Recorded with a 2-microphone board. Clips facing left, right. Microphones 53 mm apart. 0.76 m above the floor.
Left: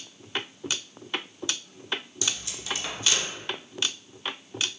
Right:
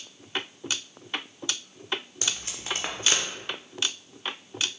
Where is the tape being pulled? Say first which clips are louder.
Even; 45° right (ahead or behind), 0.6 m.